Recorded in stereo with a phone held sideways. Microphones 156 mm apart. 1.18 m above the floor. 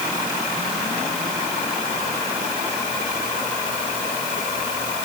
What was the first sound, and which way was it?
Only background noise.